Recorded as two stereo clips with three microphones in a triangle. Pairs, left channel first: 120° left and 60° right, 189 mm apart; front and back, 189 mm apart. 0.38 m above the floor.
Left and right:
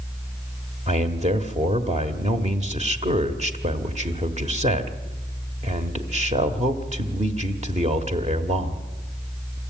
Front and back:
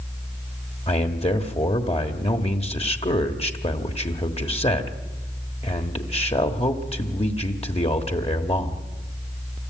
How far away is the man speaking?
About 1.5 m.